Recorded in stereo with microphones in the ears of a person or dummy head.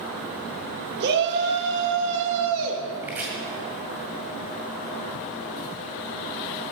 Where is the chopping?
15° right (ahead or behind), 2 m.